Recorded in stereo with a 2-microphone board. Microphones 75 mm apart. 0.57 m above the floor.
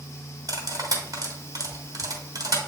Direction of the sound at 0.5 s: 55° right (ahead or behind).